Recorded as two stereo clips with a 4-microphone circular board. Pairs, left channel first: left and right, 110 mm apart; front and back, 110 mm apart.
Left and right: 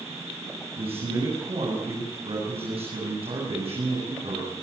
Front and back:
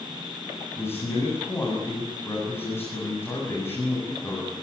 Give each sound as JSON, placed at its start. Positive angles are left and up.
{"t": 0.8, "sound": "a man speaking", "azimuth_deg": -70, "distance_m": 8.0}